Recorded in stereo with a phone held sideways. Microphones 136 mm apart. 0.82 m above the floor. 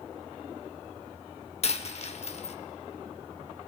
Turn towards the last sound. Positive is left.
turn(degrees=50)  # may be behind; listen again after turning